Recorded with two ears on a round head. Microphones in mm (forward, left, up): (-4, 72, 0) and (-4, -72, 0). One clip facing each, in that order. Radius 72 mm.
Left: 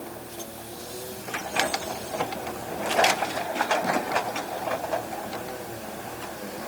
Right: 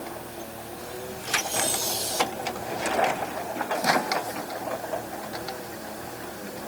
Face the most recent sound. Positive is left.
No sound to turn to.